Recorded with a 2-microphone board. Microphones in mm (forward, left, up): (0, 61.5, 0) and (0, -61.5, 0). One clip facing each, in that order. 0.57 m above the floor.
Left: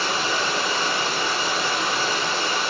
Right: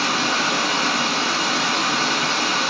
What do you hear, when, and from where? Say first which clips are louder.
0.0 s running water: right 2 dB; 80° right, 1.3 m